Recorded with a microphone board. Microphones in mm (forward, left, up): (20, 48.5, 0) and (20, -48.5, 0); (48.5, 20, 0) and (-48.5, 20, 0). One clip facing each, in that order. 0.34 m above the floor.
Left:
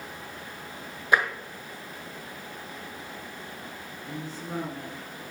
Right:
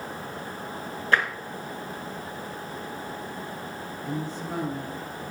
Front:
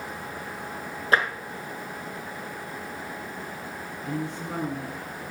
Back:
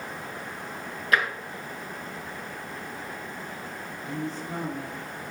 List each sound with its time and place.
1.1 s tapping: 25° left, 1.3 m
4.0 s a woman speaking: straight ahead, 4.5 m